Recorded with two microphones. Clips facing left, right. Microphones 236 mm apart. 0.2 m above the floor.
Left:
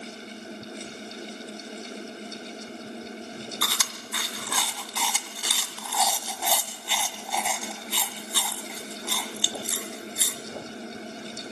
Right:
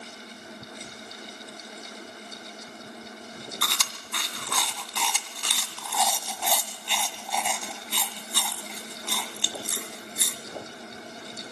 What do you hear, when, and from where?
3.6 s chewing: 5° left (ahead or behind), 1.3 m